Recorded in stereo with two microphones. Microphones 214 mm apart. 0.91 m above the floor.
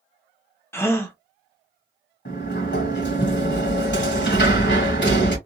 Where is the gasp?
15° left (ahead or behind), 0.6 m.